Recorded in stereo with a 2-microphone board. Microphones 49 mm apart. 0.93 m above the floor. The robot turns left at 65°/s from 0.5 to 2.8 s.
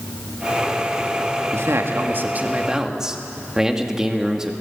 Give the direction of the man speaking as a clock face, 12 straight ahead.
3 o'clock.